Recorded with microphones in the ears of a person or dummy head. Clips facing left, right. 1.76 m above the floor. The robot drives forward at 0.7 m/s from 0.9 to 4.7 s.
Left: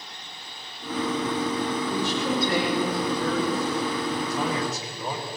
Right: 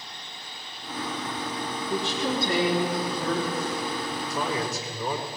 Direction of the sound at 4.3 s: 40° right (ahead or behind).